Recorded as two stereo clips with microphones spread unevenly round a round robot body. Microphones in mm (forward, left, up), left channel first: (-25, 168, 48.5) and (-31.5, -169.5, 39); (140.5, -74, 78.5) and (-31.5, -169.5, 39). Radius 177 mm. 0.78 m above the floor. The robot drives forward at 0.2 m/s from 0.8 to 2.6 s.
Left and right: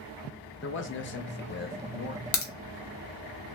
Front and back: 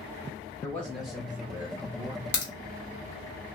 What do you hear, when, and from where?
0.6 s a man speaking: 125° left, 0.5 m; by 2.2 s 150° left, 0.7 m
2.3 s a crack: 75° left, 0.9 m; by 2.5 s 80° left, 0.8 m